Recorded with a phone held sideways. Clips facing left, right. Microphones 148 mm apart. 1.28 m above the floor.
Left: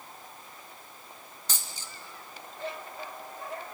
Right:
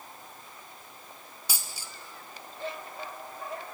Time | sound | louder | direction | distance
1.5 | a dropped coin | even | 10° right (ahead or behind) | 1.6 m